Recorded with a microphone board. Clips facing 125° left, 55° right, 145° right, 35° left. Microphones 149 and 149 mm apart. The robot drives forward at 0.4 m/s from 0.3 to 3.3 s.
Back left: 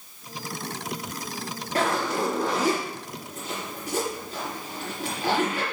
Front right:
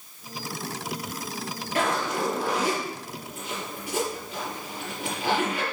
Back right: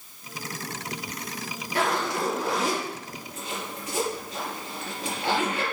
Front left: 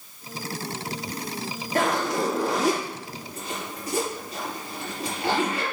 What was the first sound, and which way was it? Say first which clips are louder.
A zipper: back left 1 dB, front left 3 dB; 75° left.